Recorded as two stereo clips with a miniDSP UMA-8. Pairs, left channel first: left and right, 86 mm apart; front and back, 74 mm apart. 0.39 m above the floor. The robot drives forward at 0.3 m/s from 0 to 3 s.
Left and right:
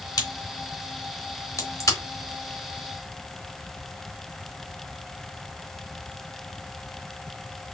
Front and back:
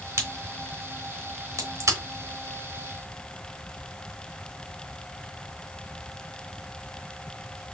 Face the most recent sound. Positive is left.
turn(degrees=145)